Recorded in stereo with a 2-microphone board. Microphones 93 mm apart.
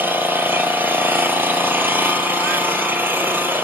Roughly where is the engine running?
Right.